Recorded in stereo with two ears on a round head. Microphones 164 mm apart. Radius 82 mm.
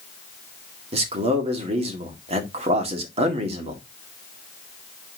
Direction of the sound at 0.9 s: 35° right (ahead or behind).